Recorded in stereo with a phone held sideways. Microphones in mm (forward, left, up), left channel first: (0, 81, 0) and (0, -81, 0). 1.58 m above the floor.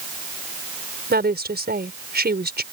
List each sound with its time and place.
1.1 s a woman speaking: 85° right